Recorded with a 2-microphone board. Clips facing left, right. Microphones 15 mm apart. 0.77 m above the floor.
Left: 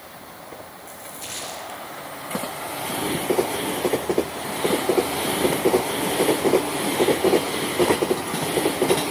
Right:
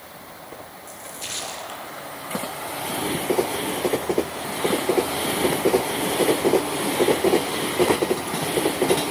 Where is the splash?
20° right (ahead or behind), 7.5 m.